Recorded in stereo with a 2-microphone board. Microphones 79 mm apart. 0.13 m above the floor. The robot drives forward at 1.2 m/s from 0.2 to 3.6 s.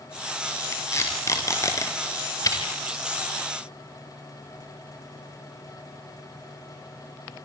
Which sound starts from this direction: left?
Tape being pulled, at 0.7 s.